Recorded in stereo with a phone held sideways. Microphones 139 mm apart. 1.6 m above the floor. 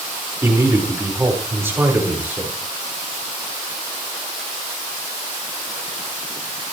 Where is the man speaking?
20° right (ahead or behind), 6 m; by 2.5 s 15° right (ahead or behind), 7 m.